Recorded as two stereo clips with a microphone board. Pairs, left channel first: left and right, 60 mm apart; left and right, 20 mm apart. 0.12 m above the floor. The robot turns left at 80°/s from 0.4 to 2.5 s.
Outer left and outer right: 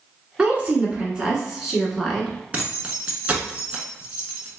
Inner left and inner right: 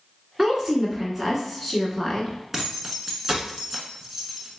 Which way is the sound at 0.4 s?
15° right (ahead or behind).